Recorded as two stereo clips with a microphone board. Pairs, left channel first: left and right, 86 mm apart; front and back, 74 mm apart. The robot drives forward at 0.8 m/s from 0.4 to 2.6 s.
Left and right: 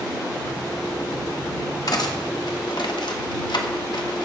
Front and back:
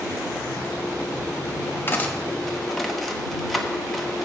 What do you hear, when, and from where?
1.9 s cutlery clinking: 60° left, 1.2 m; by 4.3 s 90° left, 1.0 m